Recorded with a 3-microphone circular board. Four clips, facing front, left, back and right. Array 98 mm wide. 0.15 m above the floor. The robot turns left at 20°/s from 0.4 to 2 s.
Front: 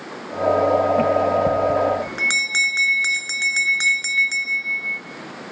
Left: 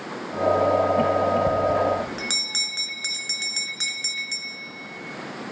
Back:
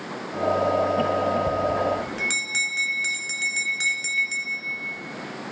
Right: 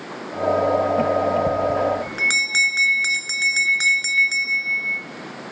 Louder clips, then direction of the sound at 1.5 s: Right 1 dB, front 5 dB; 20° right.